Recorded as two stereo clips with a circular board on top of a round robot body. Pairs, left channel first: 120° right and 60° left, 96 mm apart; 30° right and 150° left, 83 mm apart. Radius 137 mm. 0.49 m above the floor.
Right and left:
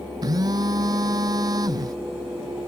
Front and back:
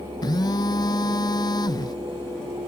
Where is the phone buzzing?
10° left.